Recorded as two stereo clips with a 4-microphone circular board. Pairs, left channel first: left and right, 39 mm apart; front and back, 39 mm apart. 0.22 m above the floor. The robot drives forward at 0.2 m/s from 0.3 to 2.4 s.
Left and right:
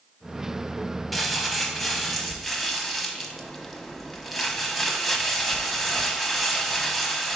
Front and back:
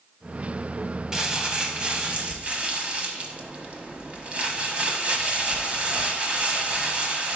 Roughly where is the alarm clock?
No alarm clock in this recording.